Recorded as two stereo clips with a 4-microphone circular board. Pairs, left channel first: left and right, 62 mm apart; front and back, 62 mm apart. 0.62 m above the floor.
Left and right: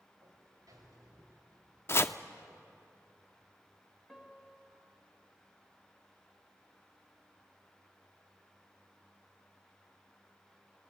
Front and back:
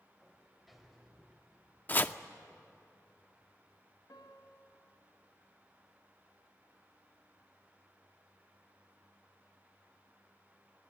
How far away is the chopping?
About 0.5 m.